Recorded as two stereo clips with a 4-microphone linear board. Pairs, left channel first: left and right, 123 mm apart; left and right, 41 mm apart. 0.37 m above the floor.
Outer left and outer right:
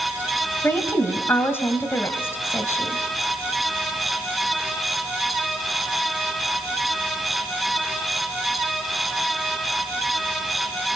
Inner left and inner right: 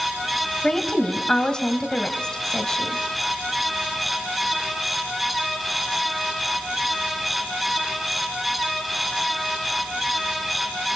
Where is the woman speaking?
20° left (ahead or behind), 1.8 m.